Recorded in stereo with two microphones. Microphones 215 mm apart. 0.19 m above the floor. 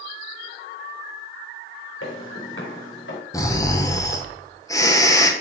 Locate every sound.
2.0 s footsteps: 75° left (ahead or behind), 3.5 m; by 3.2 s 65° left (ahead or behind), 2.5 m
3.3 s snoring: 15° left (ahead or behind), 1.0 m